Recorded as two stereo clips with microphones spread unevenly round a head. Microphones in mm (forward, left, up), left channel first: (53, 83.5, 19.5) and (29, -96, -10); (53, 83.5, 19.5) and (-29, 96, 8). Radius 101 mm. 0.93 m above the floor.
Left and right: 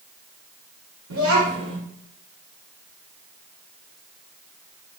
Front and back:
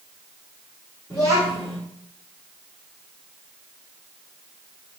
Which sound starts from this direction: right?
A child speaking, at 1.1 s.